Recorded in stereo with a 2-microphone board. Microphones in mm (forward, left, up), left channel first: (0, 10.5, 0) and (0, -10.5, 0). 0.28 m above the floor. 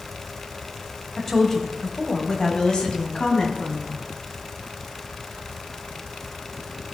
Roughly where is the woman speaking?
Centre.